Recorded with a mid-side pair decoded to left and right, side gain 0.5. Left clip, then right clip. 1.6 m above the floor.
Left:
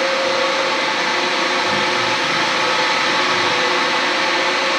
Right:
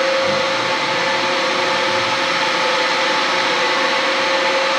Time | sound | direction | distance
0.0 | a fan | 5° right | 1.3 m